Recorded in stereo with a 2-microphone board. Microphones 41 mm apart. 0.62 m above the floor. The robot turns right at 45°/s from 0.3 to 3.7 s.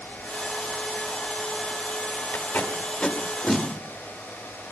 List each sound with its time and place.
2.3 s tape being pulled: 65° left (ahead or behind), 1.9 m; by 3.7 s 10° left (ahead or behind), 1.9 m